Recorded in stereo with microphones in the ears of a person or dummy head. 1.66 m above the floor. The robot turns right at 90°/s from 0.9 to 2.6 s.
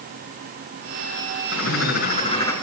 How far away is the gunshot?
No gunshot in this recording.